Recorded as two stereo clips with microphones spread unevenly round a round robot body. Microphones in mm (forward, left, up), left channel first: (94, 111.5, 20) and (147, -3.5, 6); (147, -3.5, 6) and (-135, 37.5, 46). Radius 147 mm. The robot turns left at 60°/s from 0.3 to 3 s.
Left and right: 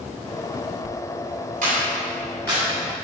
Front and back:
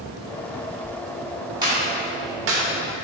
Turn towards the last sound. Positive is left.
turn(degrees=165)